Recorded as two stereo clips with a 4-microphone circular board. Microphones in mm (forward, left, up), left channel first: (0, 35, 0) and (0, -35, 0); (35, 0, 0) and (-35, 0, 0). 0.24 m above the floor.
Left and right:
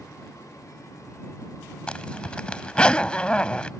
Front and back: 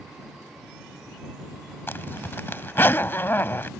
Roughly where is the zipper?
Ahead left.